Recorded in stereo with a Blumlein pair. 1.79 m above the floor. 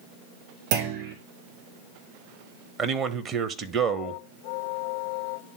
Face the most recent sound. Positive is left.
turn(degrees=-25)